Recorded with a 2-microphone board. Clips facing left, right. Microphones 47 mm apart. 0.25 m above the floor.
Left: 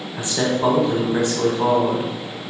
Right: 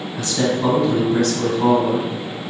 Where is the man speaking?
20° left (ahead or behind), 1.2 m.